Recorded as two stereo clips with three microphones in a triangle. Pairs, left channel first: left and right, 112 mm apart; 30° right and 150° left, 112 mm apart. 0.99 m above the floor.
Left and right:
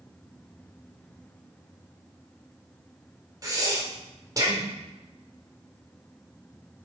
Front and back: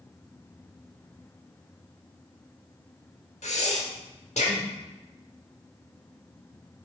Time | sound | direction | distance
3.4 | breathing | 35° right | 1.2 m